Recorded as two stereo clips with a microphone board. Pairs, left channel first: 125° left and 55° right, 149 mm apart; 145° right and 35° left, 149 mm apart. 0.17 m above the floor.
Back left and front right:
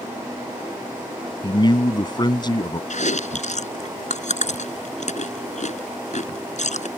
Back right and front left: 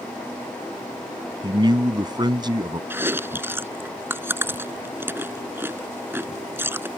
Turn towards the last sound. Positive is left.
turn(degrees=105)